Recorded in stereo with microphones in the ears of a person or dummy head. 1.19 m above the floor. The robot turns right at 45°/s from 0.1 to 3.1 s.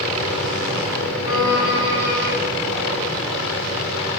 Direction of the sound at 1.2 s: 90° left.